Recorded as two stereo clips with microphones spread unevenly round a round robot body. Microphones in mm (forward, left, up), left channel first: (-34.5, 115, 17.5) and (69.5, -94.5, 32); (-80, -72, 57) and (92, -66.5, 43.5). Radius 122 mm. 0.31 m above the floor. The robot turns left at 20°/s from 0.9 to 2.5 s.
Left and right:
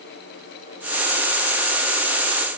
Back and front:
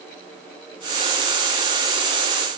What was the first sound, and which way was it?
Only background noise.